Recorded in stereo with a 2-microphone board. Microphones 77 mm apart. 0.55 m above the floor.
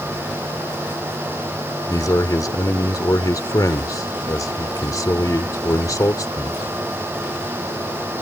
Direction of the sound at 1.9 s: 45° left (ahead or behind).